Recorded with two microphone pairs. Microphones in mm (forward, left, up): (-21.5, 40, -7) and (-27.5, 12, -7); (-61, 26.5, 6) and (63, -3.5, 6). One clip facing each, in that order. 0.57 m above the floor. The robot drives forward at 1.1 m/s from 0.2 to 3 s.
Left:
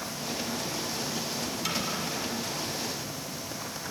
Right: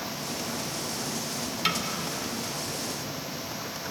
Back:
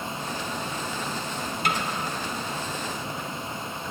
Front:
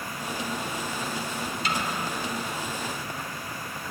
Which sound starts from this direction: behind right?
A snare drum, at 1.6 s.